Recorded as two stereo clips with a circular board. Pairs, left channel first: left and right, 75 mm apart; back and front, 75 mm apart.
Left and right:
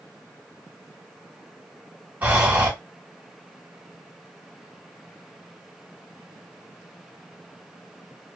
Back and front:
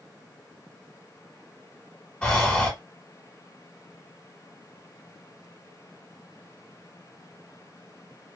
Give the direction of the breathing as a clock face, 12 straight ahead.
4 o'clock.